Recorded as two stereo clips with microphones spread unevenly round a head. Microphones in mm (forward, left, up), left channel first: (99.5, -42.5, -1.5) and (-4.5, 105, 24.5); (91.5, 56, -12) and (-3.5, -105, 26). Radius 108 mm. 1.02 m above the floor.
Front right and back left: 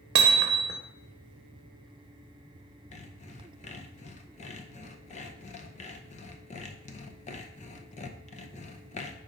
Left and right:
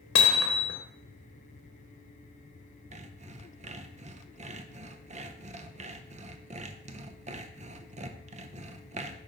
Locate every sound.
0.1 s hammering: 100° left, 0.7 m
2.9 s sawing: 70° right, 0.6 m